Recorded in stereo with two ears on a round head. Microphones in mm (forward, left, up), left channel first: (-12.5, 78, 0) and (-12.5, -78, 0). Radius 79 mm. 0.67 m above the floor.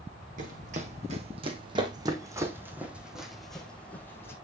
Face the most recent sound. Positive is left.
turn(degrees=15)  # may be behind; listen again after turning